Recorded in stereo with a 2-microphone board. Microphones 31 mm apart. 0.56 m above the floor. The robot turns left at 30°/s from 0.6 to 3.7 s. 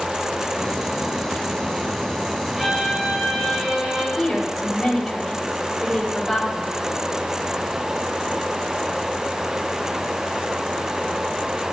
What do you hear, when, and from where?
2.5 s a violin: 15° right, 3 m; by 4.1 s 50° right, 3 m
4.2 s a woman speaking: 10° left (ahead or behind), 2.5 m